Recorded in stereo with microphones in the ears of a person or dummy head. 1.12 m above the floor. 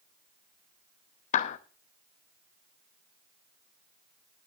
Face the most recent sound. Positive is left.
turn(degrees=45)  # may be behind; listen again after turning